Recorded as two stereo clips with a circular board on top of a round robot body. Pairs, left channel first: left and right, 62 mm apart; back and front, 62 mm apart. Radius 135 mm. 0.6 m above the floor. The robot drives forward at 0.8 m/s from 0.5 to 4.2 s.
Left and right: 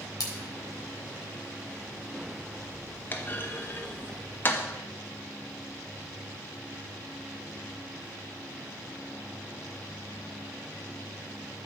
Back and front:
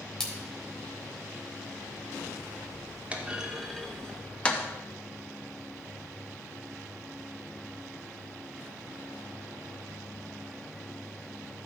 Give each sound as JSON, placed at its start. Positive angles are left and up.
{"t": 0.2, "sound": "a splash", "azimuth_deg": 100, "distance_m": 2.0}
{"t": 3.1, "sound": "a clunk", "azimuth_deg": 55, "distance_m": 1.4}